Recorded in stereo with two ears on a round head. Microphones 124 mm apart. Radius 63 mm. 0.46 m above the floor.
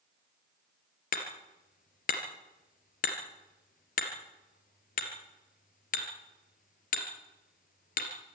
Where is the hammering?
70° left (ahead or behind), 3 m.